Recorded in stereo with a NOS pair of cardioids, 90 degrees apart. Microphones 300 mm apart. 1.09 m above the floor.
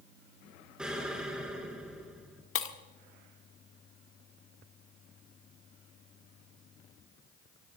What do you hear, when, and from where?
0.8 s an explosion: 5° right, 3.5 m
2.5 s breaking glass: 45° left, 1.5 m